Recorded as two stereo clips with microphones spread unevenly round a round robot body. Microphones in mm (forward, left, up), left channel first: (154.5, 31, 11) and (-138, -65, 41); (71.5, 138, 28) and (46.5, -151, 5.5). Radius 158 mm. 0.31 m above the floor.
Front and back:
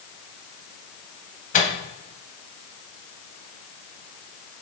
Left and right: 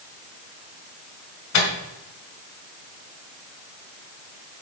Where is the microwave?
75° left, 1.9 m.